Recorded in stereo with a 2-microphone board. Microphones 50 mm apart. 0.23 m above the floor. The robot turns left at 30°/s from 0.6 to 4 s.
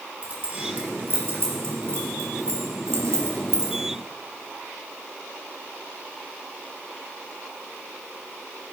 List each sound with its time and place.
0.2 s keys jangling: 30° right (ahead or behind), 3.5 m; by 3.8 s 50° right (ahead or behind), 3.5 m